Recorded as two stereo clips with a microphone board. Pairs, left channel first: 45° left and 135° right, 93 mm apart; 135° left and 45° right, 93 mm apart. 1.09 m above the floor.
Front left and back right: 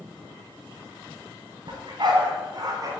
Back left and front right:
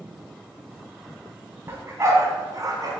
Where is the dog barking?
105° right, 2 m; by 2.9 s 90° right, 2.5 m.